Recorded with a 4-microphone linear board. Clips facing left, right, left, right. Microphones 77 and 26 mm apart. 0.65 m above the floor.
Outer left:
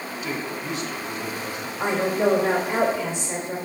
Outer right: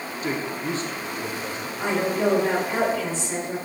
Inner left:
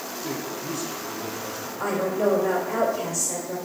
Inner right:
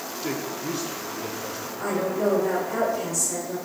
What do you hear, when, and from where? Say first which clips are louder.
0.2 s a man speaking: outer right 3 dB, inner right 2 dB; 40° right (ahead or behind), 1.3 m; by 1.7 s 30° right (ahead or behind), 2 m
1.8 s a woman speaking: outer left 1 dB, inner left 1 dB; 15° left (ahead or behind), 3 m